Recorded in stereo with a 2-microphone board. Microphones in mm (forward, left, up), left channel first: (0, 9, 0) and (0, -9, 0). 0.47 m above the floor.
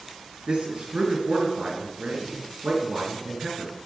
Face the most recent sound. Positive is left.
turn(degrees=-75)  # may be behind; listen again after turning